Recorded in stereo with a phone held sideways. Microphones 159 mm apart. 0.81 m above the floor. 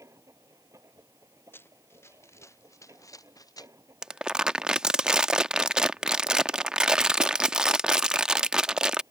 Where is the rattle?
No rattle in this recording.